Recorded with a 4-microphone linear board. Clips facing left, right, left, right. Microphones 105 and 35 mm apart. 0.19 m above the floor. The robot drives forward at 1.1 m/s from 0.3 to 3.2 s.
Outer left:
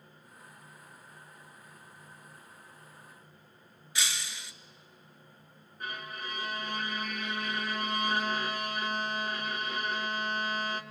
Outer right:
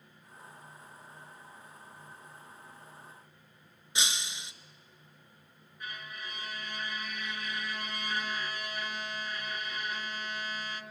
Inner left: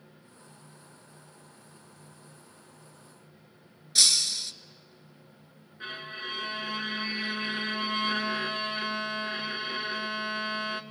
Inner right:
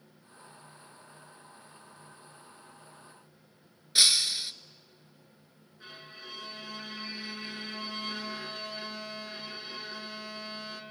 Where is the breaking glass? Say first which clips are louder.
Outer right 1 dB, inner right 1 dB; 25° right (ahead or behind), 0.6 m.